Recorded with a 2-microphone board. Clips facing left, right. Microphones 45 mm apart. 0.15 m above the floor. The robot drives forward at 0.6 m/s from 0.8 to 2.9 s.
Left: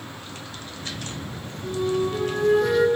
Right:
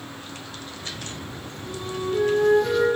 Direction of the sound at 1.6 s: 55° left (ahead or behind).